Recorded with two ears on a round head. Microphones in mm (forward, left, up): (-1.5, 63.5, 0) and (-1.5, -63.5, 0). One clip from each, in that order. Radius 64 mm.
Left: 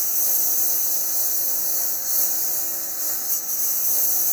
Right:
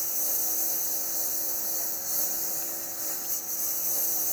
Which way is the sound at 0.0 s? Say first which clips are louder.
Left 6 dB; 25° left (ahead or behind).